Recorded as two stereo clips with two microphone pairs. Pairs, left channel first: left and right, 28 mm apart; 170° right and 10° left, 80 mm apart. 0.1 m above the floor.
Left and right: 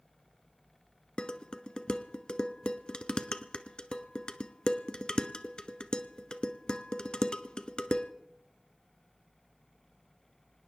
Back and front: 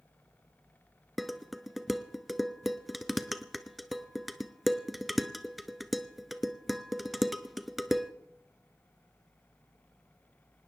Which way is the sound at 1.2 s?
100° left.